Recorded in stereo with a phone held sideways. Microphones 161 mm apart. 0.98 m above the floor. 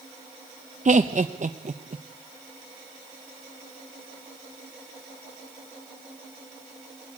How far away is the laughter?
About 0.7 m.